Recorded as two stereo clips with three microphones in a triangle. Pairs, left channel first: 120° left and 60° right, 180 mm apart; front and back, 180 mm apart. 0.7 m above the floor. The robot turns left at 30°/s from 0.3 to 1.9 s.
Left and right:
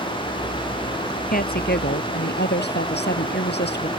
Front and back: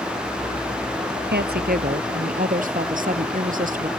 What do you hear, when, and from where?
1.3 s a woman speaking: 160° left; by 3.9 s 140° left